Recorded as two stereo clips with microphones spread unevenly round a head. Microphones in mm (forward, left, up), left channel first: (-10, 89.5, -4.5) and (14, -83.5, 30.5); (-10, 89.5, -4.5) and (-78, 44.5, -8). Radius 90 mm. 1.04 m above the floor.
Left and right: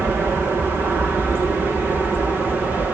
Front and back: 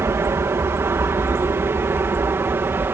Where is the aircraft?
170° right; by 3.0 s 175° right.